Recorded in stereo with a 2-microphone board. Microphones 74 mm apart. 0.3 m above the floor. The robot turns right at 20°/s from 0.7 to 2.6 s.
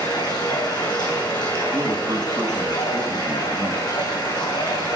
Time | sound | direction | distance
0.0 | running water | 70° left | 7.5 m
1.7 | a man speaking | 35° right (ahead or behind) | 2 m